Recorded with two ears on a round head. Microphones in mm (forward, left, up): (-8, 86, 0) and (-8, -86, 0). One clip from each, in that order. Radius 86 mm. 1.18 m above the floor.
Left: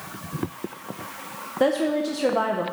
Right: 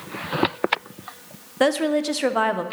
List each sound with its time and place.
1.6 s a woman speaking: 55° right (ahead or behind), 0.6 m